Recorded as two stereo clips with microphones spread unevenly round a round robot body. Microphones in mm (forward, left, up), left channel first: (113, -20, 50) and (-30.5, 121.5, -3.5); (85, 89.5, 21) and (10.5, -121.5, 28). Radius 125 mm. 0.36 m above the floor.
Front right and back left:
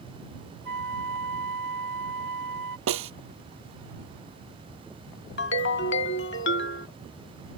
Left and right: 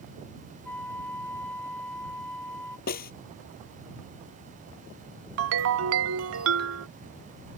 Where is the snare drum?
130° left.